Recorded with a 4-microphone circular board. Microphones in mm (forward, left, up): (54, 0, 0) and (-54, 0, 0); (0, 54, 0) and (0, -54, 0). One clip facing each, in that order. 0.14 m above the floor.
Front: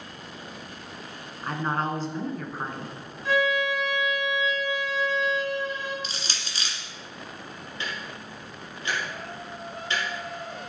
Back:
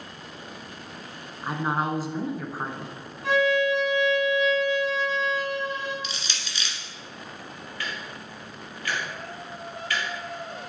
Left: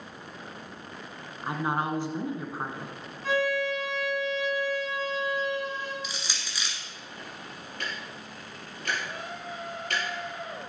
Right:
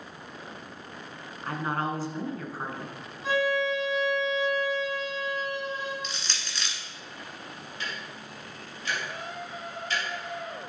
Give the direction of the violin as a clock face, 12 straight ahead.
6 o'clock.